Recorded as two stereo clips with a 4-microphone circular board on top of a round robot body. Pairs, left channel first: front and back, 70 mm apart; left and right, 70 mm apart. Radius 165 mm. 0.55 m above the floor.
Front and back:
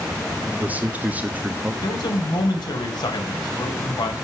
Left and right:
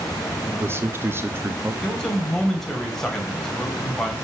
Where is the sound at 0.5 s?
125° right, 1.2 m.